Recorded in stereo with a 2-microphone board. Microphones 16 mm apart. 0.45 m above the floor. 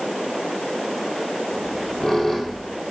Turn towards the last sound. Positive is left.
turn(degrees=35)  # may be behind; listen again after turning